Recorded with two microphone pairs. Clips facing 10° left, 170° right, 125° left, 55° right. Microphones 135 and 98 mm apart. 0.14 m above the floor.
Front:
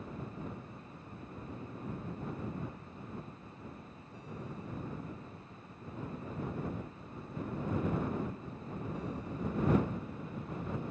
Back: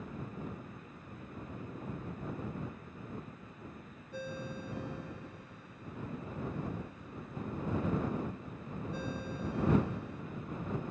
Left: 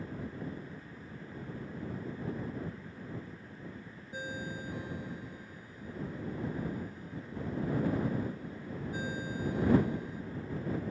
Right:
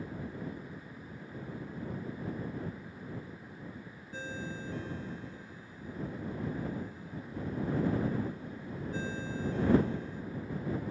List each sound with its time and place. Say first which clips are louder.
4.1 s a ringtone: back 5 dB, even; 160° right